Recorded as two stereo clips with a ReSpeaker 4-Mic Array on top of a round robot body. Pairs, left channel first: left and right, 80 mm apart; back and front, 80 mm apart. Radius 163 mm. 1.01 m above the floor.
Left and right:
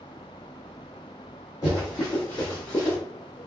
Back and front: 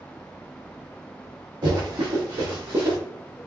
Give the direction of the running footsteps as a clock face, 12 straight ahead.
11 o'clock.